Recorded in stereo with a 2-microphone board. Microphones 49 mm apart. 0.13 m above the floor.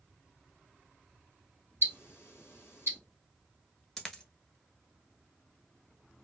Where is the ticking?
55° left (ahead or behind), 1.6 m.